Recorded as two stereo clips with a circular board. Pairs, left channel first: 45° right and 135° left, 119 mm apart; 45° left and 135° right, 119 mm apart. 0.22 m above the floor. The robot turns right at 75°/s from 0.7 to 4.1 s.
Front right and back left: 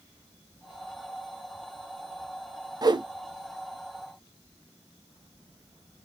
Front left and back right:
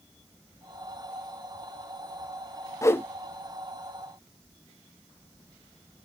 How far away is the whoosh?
About 0.7 m.